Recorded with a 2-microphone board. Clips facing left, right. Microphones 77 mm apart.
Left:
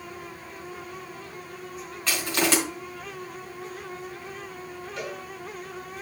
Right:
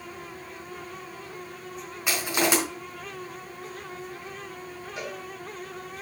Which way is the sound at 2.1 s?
15° right (ahead or behind).